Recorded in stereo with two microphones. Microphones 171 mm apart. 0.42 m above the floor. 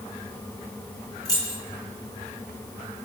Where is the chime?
No chime in this recording.